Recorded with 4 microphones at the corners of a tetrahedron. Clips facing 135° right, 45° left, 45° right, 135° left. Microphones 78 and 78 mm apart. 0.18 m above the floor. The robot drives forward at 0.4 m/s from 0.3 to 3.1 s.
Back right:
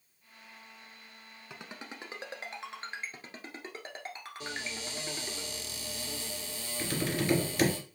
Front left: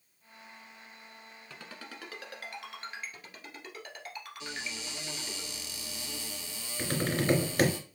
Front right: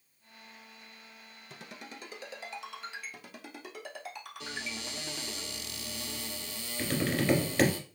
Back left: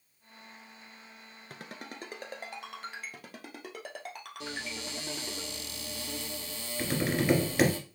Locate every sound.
1.5 s a ringtone: 155° left, 0.8 m; by 5.4 s 165° left, 1.3 m
4.4 s a cupboard door: 175° right, 2 m
6.8 s tapping: 65° left, 2 m